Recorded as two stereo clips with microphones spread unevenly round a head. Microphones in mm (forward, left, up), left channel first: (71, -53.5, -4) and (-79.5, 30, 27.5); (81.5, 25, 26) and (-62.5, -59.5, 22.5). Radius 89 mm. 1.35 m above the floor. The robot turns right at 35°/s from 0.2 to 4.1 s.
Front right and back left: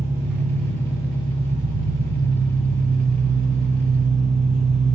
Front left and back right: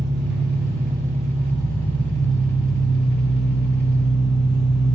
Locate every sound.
0.0 s an engine running: 130° right, 1.1 m; by 5.0 s 5° left, 1.1 m